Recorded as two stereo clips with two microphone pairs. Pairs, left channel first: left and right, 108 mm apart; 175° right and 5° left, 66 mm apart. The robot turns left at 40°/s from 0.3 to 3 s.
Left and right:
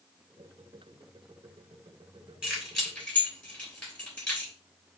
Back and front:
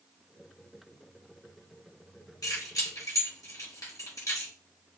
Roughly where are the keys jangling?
Behind.